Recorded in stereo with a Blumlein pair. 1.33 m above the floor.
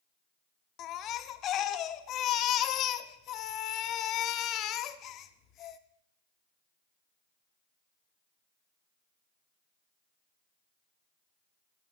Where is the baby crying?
30° left, 0.5 m.